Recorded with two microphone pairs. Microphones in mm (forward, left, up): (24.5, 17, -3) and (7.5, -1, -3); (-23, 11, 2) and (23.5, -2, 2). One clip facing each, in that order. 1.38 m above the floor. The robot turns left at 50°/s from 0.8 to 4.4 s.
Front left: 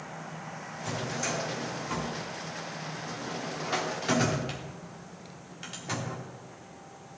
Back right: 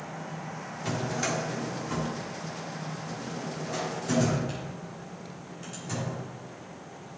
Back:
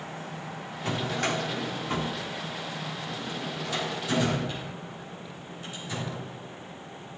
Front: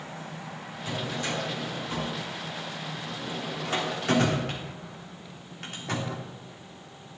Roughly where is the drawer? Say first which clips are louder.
Back right 3 dB, back 3 dB; behind.